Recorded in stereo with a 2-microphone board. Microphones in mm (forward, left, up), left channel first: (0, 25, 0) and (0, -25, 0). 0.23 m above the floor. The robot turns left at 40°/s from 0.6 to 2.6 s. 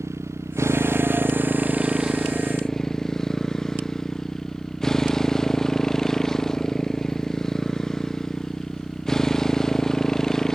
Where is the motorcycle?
110° right; by 10.6 s 170° left.